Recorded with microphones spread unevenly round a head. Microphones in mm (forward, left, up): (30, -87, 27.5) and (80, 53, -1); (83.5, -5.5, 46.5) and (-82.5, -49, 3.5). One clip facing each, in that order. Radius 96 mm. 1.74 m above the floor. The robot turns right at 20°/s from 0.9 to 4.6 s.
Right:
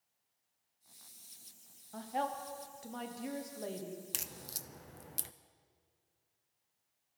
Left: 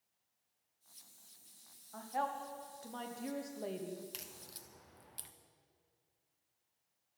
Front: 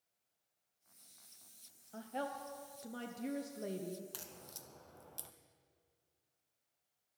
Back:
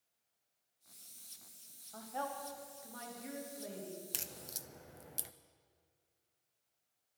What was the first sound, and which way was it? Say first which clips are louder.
A woman speaking: right 2 dB, even; 50° right.